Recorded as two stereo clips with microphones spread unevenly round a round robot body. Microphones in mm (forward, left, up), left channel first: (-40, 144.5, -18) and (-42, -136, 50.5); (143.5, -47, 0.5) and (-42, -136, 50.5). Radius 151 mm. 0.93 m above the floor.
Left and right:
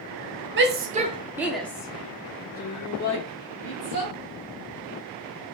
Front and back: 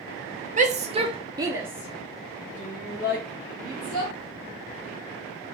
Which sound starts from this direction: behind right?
A shout, at 0.6 s.